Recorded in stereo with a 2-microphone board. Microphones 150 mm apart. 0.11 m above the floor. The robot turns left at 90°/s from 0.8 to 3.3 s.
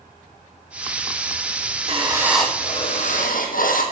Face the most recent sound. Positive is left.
turn(degrees=100)